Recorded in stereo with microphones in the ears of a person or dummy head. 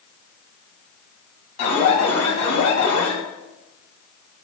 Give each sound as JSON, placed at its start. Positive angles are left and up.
{"t": 1.6, "sound": "an alarm", "side_deg": 75, "distance_m": 5.0}